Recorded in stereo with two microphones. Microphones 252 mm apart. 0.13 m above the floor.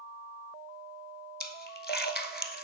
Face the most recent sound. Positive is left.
turn(degrees=40)  # may be behind; listen again after turning